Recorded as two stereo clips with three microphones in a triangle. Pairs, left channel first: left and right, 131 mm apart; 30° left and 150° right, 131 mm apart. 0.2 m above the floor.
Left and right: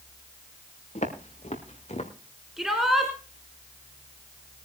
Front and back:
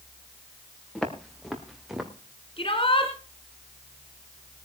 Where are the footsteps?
115° left, 4 m; by 2.1 s 125° left, 2.5 m.